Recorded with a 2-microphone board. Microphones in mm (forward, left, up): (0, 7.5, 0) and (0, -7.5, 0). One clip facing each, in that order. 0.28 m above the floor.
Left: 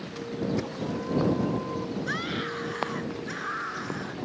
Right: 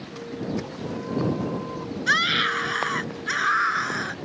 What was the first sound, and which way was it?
A scream, 75° right (ahead or behind).